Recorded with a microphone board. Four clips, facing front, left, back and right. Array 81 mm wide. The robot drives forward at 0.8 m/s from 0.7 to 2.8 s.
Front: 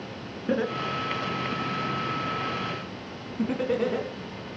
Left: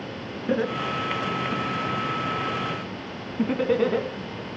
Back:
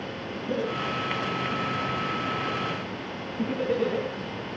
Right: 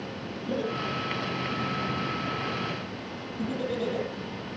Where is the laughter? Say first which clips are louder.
Left 5 dB, front 2 dB; 50° left, 3.5 m; by 4.1 s 80° left, 2.5 m.